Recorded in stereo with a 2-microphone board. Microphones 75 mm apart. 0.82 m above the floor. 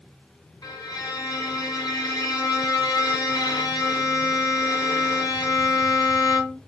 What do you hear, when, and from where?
0.6 s a violin: 60° left (ahead or behind), 3 m